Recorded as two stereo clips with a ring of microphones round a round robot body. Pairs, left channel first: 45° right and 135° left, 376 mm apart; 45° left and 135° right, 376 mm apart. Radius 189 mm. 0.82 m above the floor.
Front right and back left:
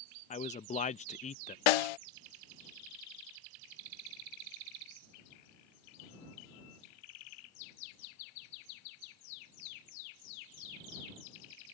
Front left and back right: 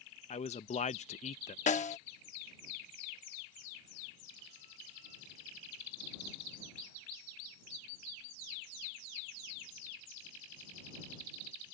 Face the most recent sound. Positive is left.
turn(degrees=-30)